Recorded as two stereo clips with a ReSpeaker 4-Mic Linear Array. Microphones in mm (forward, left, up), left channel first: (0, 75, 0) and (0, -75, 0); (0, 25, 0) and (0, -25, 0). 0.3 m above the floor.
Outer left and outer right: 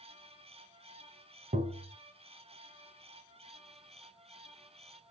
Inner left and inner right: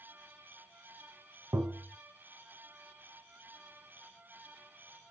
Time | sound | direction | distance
1.5 | tapping | 70° right (ahead or behind) | 0.7 m